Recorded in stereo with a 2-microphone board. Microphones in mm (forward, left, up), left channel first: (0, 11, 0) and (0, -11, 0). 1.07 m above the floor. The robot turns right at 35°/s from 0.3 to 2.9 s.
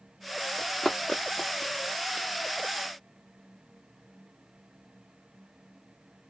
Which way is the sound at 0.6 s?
30° left (ahead or behind).